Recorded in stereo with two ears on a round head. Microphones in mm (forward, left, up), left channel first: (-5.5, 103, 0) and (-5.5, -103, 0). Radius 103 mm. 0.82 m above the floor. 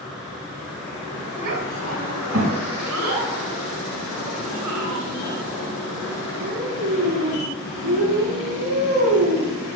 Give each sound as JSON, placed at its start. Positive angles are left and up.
{"t": 1.4, "sound": "a child speaking", "side_deg": -65, "distance_m": 5.0}